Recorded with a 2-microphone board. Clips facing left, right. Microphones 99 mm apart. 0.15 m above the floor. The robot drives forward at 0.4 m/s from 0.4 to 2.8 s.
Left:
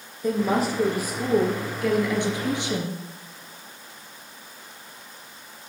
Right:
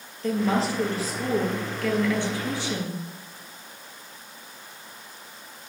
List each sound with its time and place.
0.2 s a woman speaking: 15° left (ahead or behind), 3 m; by 3.0 s 20° left (ahead or behind), 2 m